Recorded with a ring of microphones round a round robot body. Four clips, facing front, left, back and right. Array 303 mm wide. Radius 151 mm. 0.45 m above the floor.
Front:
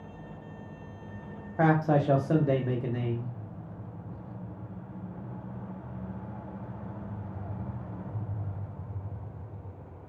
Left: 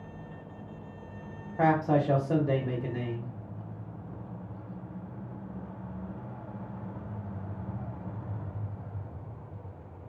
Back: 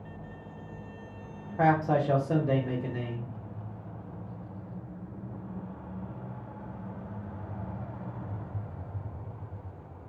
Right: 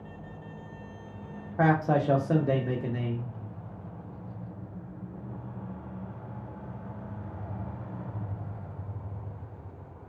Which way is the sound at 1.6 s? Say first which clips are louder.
Even, even; 45° right.